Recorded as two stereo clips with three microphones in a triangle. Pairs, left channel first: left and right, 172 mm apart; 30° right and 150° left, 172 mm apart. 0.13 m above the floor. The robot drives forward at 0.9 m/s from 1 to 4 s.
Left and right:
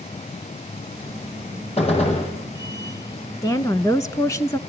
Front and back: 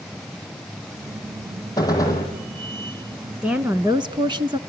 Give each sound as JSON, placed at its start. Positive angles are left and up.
{"t": 1.8, "sound": "a gunshot", "azimuth_deg": 40, "distance_m": 6.0}
{"t": 3.4, "sound": "a woman speaking", "azimuth_deg": 75, "distance_m": 1.1}